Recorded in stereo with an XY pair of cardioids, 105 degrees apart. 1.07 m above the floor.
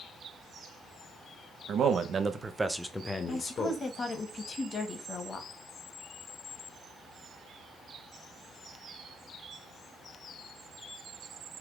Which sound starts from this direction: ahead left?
A woman speaking, at 3.3 s.